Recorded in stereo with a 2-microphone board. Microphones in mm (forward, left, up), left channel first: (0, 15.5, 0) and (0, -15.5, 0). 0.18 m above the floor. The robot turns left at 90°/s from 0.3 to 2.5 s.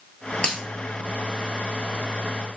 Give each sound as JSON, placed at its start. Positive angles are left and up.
{"t": 0.4, "sound": "a dropped coin", "side_deg": 40, "distance_m": 0.8}